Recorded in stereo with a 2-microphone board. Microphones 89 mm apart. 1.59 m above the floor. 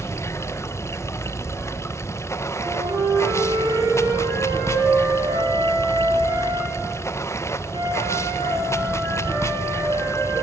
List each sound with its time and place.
0.0 s running water: 30° left (ahead or behind), 0.8 m
2.6 s a flute: 80° right, 9.5 m